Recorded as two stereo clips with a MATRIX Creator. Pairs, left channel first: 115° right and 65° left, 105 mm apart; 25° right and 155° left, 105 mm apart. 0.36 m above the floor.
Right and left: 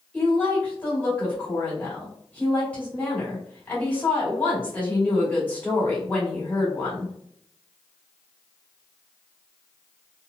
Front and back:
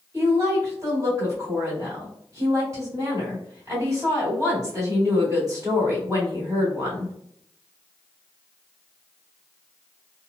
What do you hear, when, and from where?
0.1 s a woman speaking: straight behind, 1.7 m